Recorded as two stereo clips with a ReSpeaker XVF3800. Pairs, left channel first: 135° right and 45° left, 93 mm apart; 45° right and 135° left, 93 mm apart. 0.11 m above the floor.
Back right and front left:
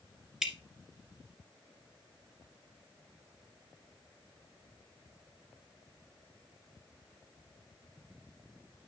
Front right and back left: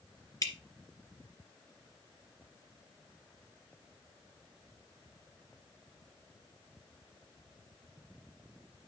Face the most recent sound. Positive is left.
turn(degrees=-35)